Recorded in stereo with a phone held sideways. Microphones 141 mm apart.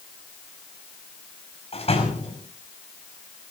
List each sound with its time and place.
1.7 s a door slam: 45° left (ahead or behind), 5.5 m